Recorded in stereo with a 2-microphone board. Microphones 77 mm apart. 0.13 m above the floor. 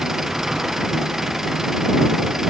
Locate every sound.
0.0 s an engine running: 5° right (ahead or behind)